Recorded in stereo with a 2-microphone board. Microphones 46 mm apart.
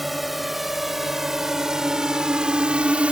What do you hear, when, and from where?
0.0 s a drone: centre (ahead or behind); by 3.1 s 25° right (ahead or behind)